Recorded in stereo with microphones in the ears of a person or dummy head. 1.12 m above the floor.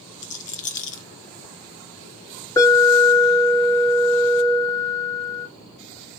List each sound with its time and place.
0.2 s a rattle: 35° left (ahead or behind), 0.7 m
2.6 s an alarm: 15° left (ahead or behind), 3 m